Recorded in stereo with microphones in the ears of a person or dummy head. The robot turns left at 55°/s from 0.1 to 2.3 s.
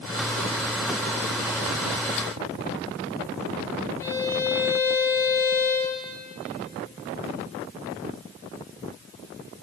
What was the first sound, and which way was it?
A violin, 10° left (ahead or behind).